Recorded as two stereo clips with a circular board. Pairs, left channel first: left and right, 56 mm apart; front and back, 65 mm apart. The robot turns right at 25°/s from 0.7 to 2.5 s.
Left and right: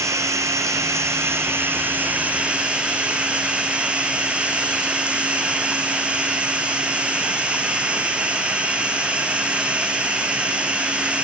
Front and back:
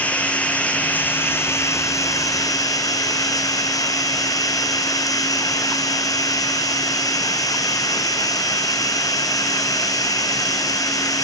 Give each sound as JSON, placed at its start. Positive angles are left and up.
{"t": 0.0, "sound": "running water", "azimuth_deg": -65, "distance_m": 1.2}